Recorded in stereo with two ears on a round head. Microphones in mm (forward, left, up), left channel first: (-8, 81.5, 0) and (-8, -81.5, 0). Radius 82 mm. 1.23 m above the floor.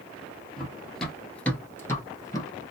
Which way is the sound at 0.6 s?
Centre (ahead or behind).